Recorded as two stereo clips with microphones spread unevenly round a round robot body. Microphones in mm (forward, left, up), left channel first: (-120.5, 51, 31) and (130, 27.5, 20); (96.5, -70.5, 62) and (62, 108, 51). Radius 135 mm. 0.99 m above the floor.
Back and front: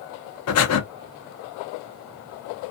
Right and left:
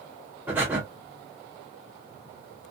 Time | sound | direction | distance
0.5 | breathing | 175° right | 0.6 m